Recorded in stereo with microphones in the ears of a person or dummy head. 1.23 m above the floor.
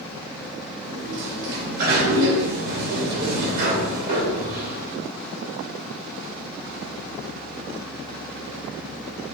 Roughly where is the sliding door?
Right.